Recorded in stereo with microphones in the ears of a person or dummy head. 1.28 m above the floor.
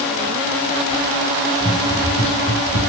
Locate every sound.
1.6 s running footsteps: 25° left (ahead or behind), 3.5 m; by 2.9 s 40° left (ahead or behind), 3 m